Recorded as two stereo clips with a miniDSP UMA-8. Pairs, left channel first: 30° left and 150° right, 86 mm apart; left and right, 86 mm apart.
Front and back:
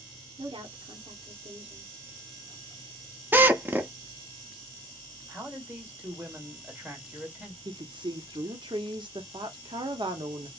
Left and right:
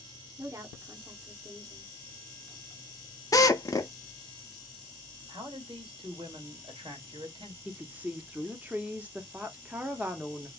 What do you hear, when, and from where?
0.4 s a woman speaking: 140° right, 1.0 m
3.3 s a drill: 140° left, 0.6 m
5.3 s a man speaking: 85° right, 1.9 m
7.7 s a woman speaking: 160° right, 0.9 m